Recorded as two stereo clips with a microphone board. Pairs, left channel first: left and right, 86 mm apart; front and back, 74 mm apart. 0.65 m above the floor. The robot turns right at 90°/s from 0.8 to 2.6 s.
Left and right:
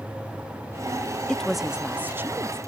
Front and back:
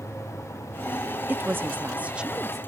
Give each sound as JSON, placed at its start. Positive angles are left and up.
{"t": 1.3, "sound": "a woman speaking", "azimuth_deg": 155}